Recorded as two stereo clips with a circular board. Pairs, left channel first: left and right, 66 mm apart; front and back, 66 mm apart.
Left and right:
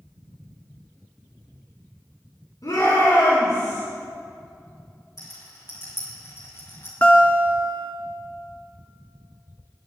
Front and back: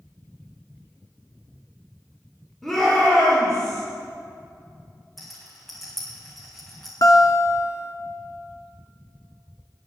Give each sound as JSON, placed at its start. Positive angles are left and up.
{"t": 2.6, "sound": "a shout", "azimuth_deg": 85, "distance_m": 5.5}
{"t": 5.2, "sound": "a rattle", "azimuth_deg": 85, "distance_m": 4.0}
{"t": 7.0, "sound": "a guitar", "azimuth_deg": 25, "distance_m": 1.7}